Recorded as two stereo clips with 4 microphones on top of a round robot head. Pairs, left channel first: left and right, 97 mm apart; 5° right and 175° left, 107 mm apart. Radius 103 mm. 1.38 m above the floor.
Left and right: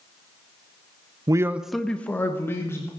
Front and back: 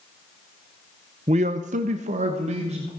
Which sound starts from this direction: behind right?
A man speaking, at 1.3 s.